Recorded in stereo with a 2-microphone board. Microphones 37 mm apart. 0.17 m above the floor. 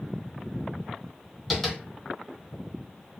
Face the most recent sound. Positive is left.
turn(degrees=0)  # may be behind; listen again after turning